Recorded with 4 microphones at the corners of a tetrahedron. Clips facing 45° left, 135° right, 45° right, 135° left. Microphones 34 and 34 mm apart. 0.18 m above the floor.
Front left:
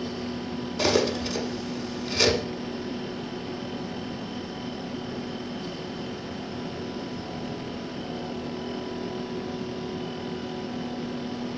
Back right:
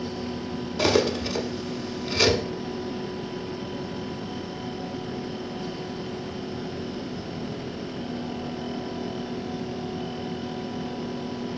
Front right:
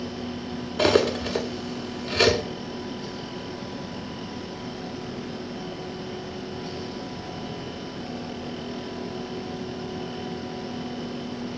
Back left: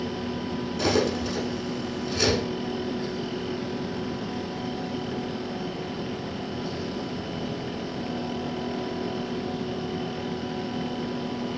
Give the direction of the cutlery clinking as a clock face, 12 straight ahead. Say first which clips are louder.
Back right 2 dB, front right 4 dB; 2 o'clock.